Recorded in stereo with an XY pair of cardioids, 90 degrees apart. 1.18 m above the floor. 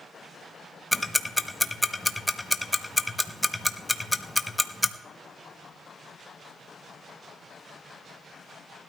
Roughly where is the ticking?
Ahead.